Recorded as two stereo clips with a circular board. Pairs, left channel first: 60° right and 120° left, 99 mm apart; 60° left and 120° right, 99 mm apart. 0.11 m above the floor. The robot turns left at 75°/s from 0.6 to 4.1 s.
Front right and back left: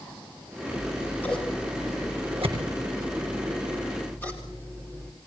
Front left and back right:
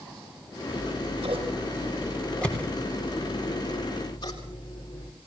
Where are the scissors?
95° right, 7.5 m; by 5.1 s 10° left, 7.5 m.